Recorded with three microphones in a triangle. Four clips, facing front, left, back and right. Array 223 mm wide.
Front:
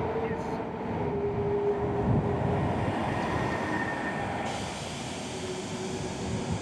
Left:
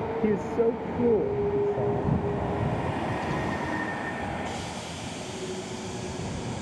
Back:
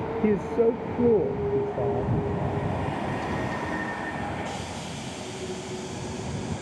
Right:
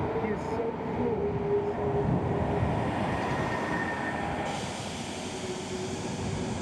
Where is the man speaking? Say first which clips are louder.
Left 6 dB, back 10 dB; 155° left.